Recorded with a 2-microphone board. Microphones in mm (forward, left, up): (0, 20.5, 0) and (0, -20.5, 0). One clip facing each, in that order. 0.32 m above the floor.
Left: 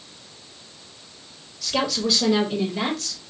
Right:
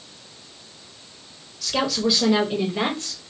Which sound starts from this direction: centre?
A woman speaking, at 1.6 s.